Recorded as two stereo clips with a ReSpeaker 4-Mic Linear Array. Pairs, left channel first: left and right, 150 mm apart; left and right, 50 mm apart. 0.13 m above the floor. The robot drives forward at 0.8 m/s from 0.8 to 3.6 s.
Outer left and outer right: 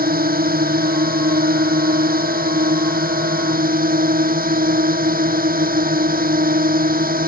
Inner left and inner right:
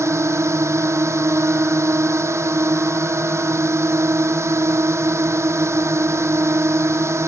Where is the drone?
75° right (ahead or behind); by 7.3 s 70° right (ahead or behind).